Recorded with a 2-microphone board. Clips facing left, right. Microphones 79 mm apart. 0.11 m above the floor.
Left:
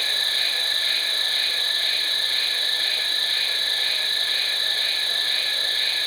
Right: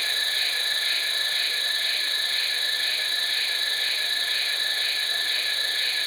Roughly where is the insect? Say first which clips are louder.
Left 1 dB; left.